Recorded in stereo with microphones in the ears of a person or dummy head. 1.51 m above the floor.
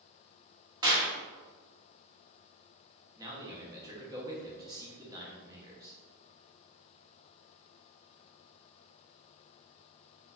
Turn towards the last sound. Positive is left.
turn(degrees=-15)  # may be behind; listen again after turning